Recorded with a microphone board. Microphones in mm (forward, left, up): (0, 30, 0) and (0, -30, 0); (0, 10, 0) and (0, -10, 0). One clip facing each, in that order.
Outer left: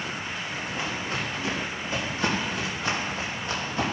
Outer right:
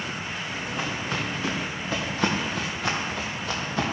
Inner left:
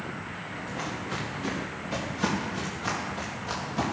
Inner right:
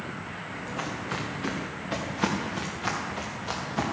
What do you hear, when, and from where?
0.5 s footsteps: 80° right, 3.5 m